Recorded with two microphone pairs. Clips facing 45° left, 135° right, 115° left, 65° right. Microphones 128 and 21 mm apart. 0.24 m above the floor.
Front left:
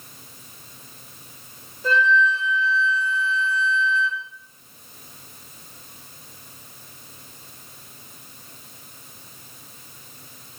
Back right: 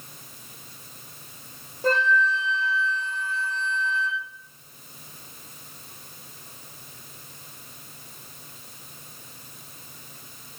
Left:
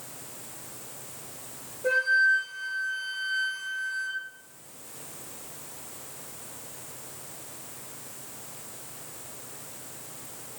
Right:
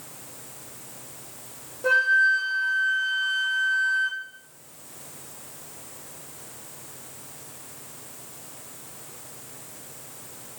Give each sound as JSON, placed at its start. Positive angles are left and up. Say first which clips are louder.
{"t": 1.8, "sound": "a flute", "louder": "front left 2 dB, right 3 dB", "azimuth_deg": -95, "distance_m": 3.0}